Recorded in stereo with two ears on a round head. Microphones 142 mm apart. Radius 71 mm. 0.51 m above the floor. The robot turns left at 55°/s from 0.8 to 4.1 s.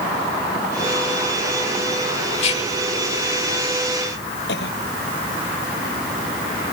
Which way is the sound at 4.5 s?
80° left.